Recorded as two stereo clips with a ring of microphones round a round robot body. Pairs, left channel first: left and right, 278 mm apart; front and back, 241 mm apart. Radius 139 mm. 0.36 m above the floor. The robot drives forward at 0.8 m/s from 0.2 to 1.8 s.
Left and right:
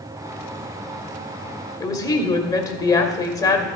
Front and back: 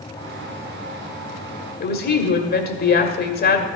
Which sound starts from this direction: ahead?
A woman speaking, at 1.8 s.